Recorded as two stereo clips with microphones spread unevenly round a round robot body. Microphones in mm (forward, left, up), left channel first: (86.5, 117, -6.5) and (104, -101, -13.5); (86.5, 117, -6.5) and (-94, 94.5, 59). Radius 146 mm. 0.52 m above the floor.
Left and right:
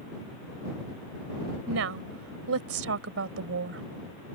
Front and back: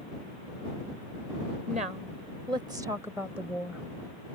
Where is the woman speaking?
105° right; by 3.8 s 75° right.